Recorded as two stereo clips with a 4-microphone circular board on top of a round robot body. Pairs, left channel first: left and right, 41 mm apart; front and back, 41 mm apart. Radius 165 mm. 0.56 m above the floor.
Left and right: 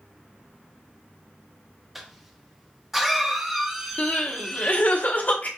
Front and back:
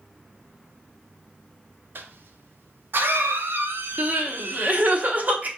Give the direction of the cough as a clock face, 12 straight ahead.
6 o'clock.